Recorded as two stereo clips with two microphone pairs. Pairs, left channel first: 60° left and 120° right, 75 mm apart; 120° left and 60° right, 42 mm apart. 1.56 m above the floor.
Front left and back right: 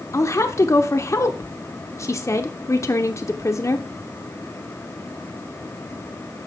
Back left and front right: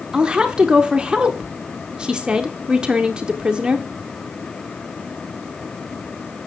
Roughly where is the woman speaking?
Ahead.